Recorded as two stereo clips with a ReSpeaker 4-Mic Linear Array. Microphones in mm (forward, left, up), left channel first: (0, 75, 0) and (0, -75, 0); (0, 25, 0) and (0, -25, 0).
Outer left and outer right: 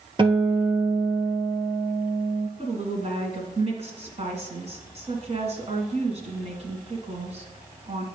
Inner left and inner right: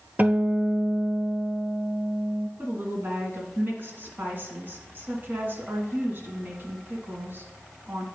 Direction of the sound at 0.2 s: 35° right (ahead or behind).